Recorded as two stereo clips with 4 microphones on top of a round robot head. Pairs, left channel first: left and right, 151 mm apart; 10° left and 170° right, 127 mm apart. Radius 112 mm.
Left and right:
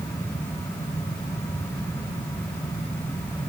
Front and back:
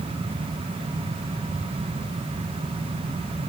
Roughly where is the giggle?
No giggle in this recording.